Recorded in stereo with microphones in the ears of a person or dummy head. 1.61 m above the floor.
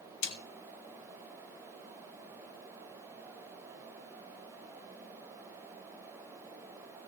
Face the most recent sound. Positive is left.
turn(degrees=70)  # may be behind; listen again after turning